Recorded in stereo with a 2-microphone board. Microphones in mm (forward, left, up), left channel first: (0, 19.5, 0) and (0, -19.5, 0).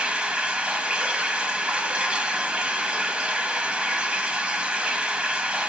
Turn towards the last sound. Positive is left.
turn(degrees=-30)  # may be behind; listen again after turning